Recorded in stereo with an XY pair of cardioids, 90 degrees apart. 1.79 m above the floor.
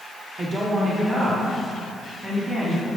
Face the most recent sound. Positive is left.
turn(degrees=-35)